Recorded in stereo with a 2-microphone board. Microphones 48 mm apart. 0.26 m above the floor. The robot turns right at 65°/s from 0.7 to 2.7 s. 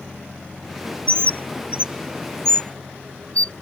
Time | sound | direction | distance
1.1 | a bird | 65° right (ahead or behind) | ?